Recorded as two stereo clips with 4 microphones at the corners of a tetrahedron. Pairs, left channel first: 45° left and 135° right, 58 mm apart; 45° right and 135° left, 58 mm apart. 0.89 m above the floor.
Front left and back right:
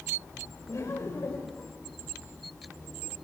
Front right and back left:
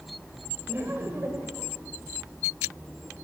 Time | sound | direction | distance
0.7 | laughter | 85° left | 3.5 m